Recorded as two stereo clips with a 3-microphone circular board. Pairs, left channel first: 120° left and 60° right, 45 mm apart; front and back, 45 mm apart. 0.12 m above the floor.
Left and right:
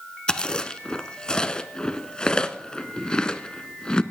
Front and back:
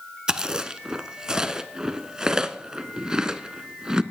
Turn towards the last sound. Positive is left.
turn(degrees=140)